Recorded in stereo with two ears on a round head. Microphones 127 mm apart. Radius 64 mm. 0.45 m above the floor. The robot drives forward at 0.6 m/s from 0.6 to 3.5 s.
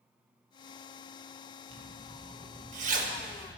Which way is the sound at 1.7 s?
40° right (ahead or behind).